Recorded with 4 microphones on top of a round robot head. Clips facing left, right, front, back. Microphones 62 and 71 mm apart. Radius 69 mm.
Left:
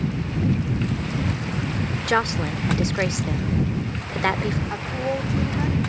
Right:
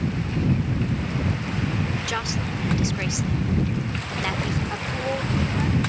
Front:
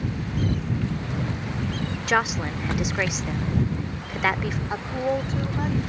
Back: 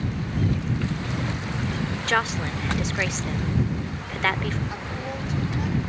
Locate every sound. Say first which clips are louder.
2.1 s a woman speaking: left 6 dB, front 2 dB; 75° left
4.7 s a woman speaking: left 1 dB, front 7 dB; 15° left